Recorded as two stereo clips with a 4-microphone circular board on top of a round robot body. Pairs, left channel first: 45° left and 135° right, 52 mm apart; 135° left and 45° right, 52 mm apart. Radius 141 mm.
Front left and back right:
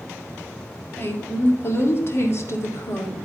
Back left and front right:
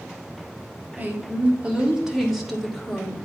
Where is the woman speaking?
5° left, 1.8 m; by 3.1 s 55° left, 2 m.